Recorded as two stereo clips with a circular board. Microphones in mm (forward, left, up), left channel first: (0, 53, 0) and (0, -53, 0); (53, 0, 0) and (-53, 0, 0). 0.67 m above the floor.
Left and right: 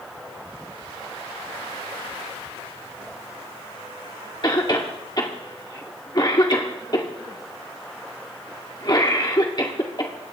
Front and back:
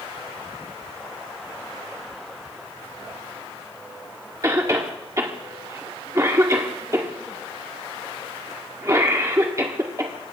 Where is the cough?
125° left, 1.8 m.